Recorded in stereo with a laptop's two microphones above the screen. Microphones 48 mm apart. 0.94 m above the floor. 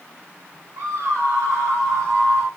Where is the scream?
65° right (ahead or behind), 2.5 m; by 2.5 s 35° right (ahead or behind), 2.5 m.